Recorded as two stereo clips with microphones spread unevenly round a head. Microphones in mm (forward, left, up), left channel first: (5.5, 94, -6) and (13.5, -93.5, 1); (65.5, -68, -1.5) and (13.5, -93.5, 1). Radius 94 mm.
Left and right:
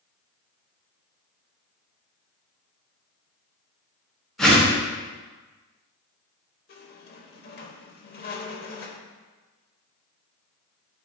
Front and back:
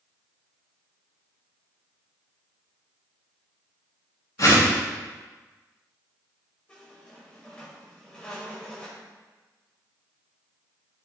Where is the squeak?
100° left, 0.9 m.